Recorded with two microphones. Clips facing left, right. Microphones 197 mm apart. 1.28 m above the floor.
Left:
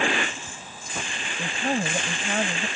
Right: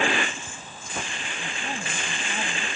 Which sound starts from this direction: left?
A woman speaking, at 1.4 s.